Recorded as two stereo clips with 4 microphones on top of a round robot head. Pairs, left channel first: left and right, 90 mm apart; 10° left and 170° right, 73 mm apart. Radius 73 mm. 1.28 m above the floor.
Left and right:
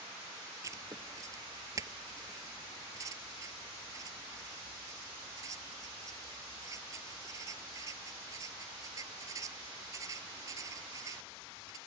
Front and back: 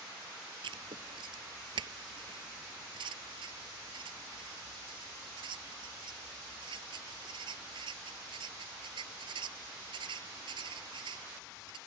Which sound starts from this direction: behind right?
Writing, at 0.6 s.